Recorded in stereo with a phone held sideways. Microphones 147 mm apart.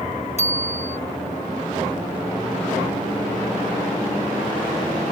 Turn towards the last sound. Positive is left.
turn(degrees=50)  # may be behind; listen again after turning